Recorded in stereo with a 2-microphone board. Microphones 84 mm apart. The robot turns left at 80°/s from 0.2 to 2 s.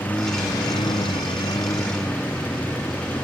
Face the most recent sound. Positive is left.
turn(degrees=20)  # may be behind; listen again after turning